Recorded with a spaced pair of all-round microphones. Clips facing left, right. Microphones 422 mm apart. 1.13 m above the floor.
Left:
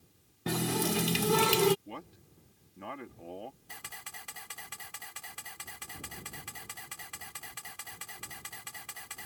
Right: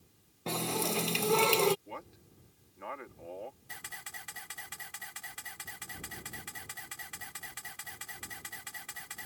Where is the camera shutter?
35° right (ahead or behind).